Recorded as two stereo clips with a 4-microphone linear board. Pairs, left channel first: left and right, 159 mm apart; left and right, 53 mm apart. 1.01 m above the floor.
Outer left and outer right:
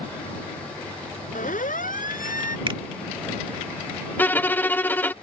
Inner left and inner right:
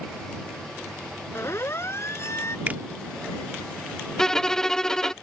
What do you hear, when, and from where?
1.4 s a siren: 55° left (ahead or behind); by 2.6 s 60° left (ahead or behind)
2.7 s a finger snap: 30° right (ahead or behind)
4.2 s a violin: 10° left (ahead or behind)